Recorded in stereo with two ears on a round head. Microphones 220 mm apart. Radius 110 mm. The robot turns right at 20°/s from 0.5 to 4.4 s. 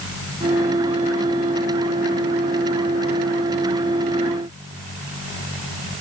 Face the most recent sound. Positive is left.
No sound to turn to.